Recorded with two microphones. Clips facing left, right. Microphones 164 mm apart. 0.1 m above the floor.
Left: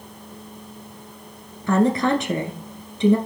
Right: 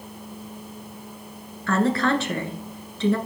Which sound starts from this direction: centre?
A woman speaking, at 1.7 s.